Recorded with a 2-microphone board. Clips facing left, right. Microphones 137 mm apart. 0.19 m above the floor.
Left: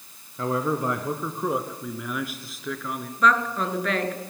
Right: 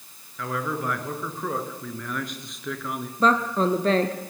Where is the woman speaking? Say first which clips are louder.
Right 2 dB; 30° right (ahead or behind), 2 m.